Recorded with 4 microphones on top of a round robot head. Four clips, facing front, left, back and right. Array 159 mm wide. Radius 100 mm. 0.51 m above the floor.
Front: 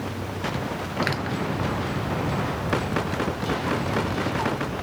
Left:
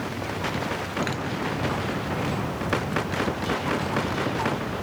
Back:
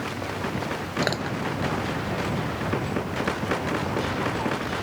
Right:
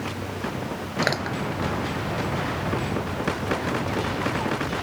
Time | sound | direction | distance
1.0 | crushing | 130° right | ?